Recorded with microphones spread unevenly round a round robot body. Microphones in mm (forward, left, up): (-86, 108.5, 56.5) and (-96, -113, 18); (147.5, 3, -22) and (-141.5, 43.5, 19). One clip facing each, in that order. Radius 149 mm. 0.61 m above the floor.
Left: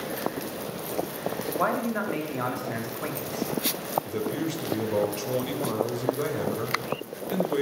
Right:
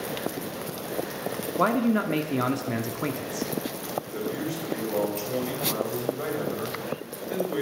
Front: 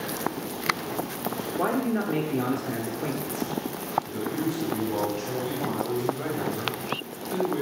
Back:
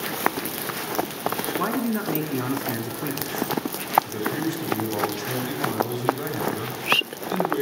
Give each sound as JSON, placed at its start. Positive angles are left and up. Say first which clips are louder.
{"t": 1.6, "sound": "a man speaking", "louder": "right 7 dB, front 1 dB", "azimuth_deg": -115, "distance_m": 1.4}
{"t": 4.0, "sound": "a man speaking", "louder": "left 2 dB, front 1 dB", "azimuth_deg": 135, "distance_m": 3.0}